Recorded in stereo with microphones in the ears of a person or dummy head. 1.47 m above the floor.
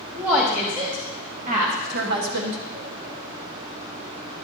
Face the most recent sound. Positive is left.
turn(degrees=-70)  # may be behind; listen again after turning